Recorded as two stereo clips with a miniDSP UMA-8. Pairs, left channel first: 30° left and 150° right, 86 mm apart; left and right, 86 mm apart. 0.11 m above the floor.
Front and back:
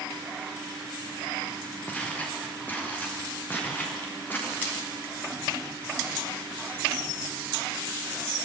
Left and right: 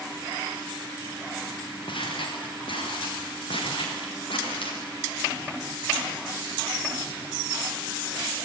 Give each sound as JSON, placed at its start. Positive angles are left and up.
{"t": 1.9, "sound": "footsteps", "azimuth_deg": 105, "distance_m": 7.0}